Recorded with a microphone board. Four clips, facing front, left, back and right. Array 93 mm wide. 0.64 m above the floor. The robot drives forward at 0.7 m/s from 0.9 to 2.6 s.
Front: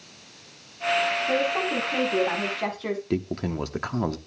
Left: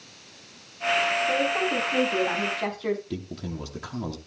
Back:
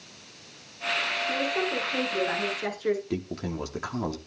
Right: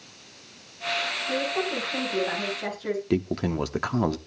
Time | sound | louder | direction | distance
1.3 | a woman speaking | left 3 dB, even | 25° left | 7.5 m
3.1 | a man speaking | right 9 dB, front 4 dB | 65° right | 0.9 m